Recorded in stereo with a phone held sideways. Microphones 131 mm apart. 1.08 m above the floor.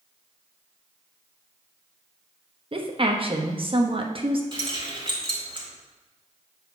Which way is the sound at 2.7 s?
45° right (ahead or behind).